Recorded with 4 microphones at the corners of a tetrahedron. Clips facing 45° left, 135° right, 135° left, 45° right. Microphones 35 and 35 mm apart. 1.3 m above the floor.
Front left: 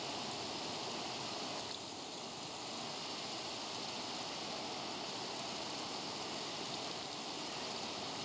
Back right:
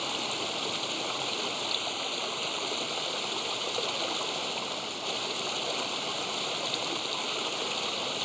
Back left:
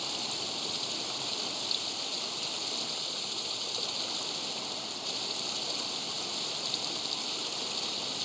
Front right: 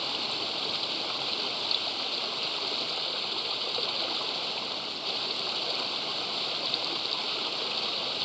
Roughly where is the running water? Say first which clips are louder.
Back right 10 dB, front right 4 dB; right.